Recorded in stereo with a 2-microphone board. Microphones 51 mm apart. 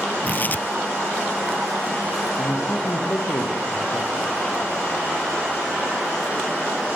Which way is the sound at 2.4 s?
75° left (ahead or behind).